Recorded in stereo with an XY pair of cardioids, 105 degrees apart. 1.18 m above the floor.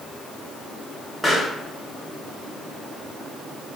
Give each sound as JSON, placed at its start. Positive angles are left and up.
{"t": 1.2, "sound": "a pop", "azimuth_deg": 10, "distance_m": 2.0}